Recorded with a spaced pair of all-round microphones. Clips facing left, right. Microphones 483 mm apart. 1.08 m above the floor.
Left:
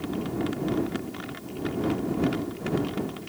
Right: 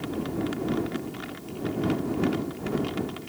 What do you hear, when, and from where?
Only background noise.